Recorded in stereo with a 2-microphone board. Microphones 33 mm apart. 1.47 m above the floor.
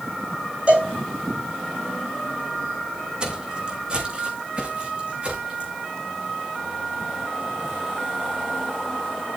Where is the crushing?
I don't hear crushing.